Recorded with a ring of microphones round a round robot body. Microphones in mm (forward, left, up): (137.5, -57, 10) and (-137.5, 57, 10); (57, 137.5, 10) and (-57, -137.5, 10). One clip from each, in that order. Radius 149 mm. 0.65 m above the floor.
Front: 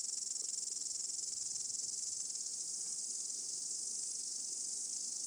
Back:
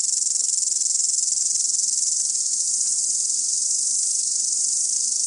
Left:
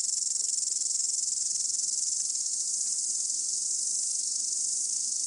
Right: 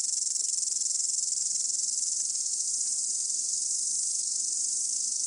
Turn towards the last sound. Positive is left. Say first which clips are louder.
# back 19 dB, even
turn(degrees=160)